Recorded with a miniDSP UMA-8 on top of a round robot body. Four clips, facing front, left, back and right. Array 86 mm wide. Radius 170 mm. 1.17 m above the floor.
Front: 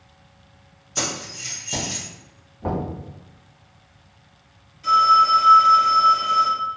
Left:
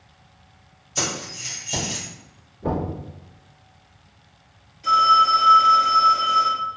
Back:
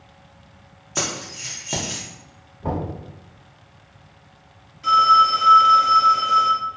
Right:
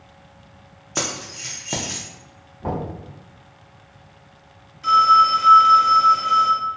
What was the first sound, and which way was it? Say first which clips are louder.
Keys jangling: right 1 dB, back 1 dB; 120° right.